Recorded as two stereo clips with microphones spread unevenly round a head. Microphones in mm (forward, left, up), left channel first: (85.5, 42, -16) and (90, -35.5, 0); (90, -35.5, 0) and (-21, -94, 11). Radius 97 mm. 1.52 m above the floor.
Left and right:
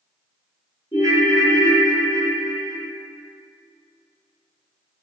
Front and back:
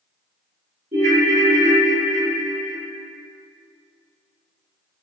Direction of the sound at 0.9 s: 165° left.